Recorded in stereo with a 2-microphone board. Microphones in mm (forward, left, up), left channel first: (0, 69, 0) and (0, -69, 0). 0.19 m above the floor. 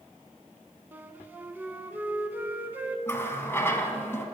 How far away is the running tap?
About 0.8 m.